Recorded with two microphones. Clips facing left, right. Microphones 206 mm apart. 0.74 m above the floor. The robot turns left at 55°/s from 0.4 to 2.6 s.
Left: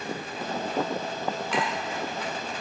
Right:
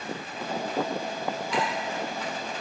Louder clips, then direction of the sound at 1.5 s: Right 1 dB; 75° left (ahead or behind).